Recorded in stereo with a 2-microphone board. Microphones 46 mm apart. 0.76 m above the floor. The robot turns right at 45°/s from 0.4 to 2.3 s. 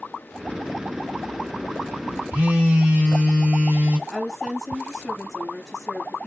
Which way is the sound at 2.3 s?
25° right (ahead or behind).